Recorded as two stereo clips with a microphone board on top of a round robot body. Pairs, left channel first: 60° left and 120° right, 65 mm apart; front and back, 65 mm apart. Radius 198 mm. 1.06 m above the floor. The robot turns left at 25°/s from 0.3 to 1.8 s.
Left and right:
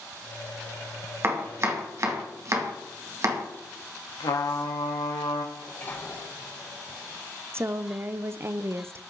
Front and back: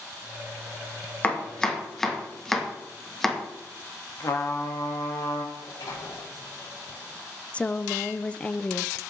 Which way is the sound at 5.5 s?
5° left.